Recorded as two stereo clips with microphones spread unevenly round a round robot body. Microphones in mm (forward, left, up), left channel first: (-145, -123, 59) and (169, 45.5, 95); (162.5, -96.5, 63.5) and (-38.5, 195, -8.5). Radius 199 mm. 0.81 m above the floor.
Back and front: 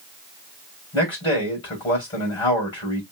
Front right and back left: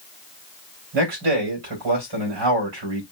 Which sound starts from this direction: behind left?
A man speaking, at 0.9 s.